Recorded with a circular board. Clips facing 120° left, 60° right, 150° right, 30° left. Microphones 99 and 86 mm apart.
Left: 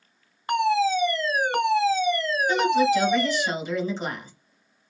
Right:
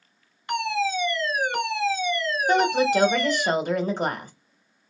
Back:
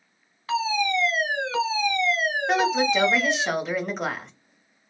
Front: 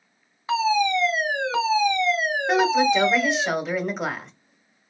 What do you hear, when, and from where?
0.5 s a fire alarm: 95° left, 3 m
2.5 s a woman speaking: 55° right, 1.5 m